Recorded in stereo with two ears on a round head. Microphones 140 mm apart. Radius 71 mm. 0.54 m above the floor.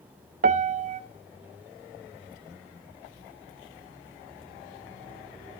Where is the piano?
50° right (ahead or behind), 1.0 m.